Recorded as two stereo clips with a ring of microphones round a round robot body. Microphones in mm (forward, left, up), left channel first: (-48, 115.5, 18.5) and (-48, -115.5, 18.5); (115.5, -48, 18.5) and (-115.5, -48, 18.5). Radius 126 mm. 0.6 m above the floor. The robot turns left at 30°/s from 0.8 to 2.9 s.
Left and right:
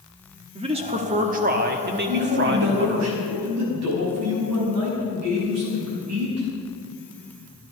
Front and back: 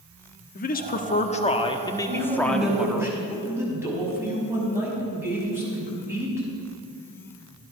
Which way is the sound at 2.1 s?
75° right.